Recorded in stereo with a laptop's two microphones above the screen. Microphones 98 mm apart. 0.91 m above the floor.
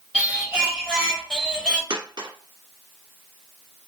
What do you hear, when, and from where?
0.1 s singing: 5° right (ahead or behind), 0.9 m
1.9 s a dropped coin: 55° right (ahead or behind), 1.4 m